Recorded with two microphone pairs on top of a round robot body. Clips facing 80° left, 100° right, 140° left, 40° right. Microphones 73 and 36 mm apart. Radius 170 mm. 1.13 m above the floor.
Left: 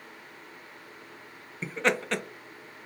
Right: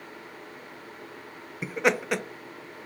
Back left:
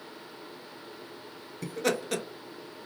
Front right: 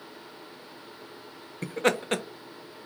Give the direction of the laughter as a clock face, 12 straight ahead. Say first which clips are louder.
Right 2 dB, front right 4 dB; 2 o'clock.